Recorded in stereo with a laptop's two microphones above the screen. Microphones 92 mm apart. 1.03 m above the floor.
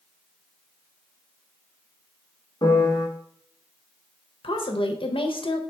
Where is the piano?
45° left (ahead or behind), 1.2 m.